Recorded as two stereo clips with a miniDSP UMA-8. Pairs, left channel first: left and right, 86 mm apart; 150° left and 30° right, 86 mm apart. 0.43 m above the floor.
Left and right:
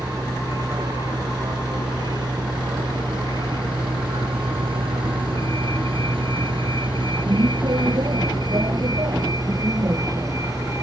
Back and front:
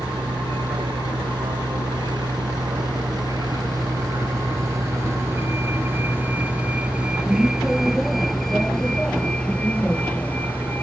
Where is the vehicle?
45° right; by 10.8 s 140° right.